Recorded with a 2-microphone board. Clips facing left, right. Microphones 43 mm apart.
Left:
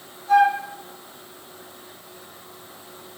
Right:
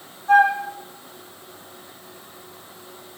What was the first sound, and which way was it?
A flute, 40° right (ahead or behind).